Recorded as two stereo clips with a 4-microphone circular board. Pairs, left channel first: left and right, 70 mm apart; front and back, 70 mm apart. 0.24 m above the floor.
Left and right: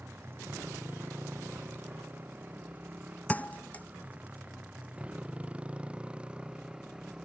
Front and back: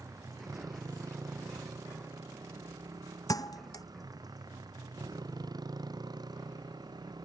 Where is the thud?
25° left.